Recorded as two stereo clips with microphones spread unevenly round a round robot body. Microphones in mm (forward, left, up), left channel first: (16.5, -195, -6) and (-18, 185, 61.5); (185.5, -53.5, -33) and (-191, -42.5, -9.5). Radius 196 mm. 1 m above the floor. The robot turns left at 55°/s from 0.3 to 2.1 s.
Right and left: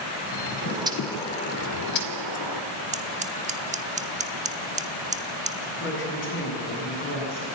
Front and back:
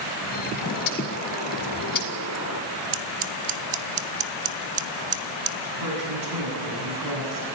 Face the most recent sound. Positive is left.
turn(degrees=-145)